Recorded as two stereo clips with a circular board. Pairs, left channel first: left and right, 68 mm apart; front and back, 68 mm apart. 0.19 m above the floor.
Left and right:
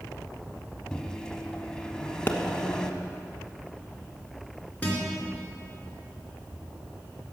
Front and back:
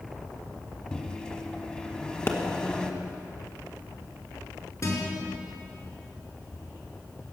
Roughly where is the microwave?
Ahead left.